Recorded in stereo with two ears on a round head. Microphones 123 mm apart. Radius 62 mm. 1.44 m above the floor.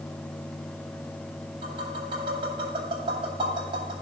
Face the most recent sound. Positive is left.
turn(degrees=-35)  # may be behind; listen again after turning